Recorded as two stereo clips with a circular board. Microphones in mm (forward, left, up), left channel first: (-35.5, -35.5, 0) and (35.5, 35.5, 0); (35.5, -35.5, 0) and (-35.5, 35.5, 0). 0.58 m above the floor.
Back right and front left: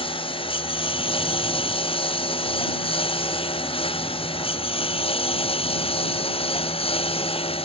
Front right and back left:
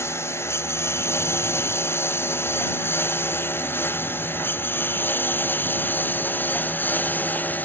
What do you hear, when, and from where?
0.0 s a lawn mower: 110° right; by 7.7 s 115° right